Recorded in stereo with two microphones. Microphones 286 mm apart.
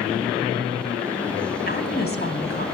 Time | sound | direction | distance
1.7 | a woman speaking | 35° left (ahead or behind) | 3 m